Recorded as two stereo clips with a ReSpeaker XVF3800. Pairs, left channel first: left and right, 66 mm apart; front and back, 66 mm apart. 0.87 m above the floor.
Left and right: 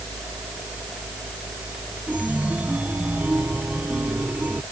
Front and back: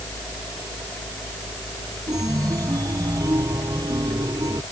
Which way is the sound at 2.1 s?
160° right.